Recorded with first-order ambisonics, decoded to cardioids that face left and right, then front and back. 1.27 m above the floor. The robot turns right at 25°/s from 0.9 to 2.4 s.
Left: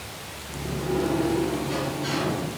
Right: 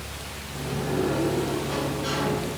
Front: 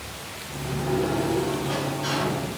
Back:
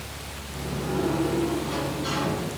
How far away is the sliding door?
About 6.5 m.